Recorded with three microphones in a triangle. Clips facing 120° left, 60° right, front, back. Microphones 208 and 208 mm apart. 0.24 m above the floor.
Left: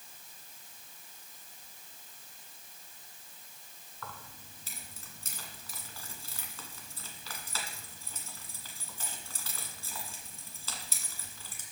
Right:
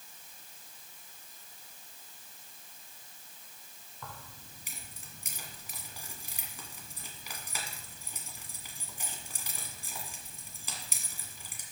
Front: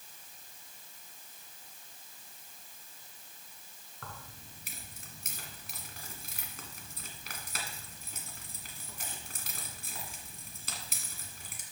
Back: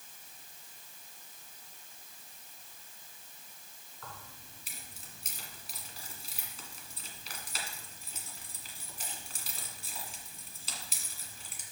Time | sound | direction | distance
4.0 | keys jangling | 10° left | 1.7 m